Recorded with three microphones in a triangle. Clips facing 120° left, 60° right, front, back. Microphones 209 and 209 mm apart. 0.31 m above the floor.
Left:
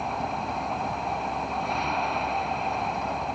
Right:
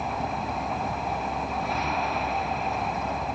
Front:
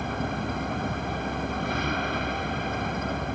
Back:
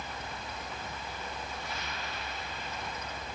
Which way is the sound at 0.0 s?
30° left.